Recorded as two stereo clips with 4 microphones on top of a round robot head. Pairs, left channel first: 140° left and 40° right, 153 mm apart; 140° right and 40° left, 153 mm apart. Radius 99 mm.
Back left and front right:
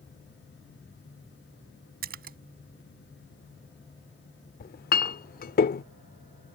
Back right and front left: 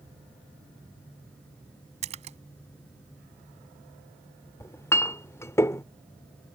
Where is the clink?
145° left.